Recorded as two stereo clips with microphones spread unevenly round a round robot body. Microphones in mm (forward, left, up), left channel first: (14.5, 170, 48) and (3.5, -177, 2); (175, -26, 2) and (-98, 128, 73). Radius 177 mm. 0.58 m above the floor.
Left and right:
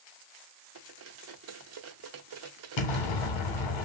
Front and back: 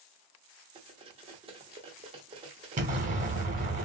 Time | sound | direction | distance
0.8 | cutlery clinking | 130° right | 0.6 m
2.8 | an explosion | 85° left | 1.0 m